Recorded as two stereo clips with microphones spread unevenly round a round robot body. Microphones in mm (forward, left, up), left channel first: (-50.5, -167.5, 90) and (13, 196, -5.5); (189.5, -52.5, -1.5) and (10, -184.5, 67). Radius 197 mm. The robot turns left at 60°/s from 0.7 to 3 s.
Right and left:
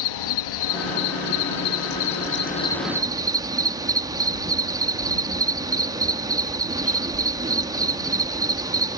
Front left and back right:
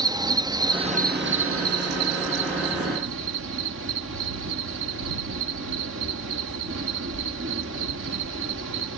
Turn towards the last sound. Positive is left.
turn(degrees=155)